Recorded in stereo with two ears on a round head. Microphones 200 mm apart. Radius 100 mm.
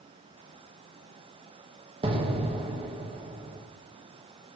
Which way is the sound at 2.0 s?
25° right (ahead or behind).